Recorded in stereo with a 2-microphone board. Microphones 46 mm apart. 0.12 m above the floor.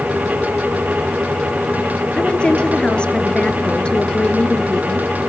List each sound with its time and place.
2.2 s a woman speaking: 25° left (ahead or behind), 1.7 m